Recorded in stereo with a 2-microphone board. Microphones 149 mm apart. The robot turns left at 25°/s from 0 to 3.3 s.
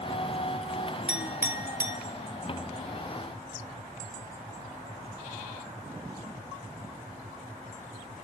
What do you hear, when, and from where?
1.1 s a clink: 5° right (ahead or behind), 1.0 m; by 2.0 s 20° right (ahead or behind), 1.0 m